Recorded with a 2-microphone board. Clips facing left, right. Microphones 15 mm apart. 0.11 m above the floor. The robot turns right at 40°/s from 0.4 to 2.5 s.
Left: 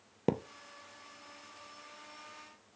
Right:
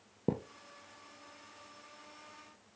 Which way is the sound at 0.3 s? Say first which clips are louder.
Left 3 dB; 65° left (ahead or behind).